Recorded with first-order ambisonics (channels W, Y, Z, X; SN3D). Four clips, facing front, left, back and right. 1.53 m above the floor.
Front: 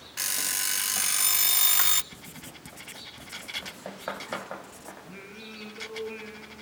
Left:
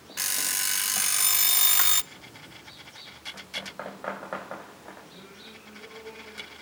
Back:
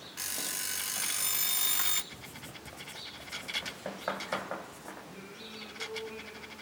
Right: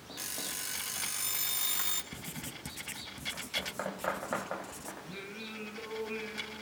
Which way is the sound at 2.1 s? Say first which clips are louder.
Right 2 dB, front 1 dB; 65° right.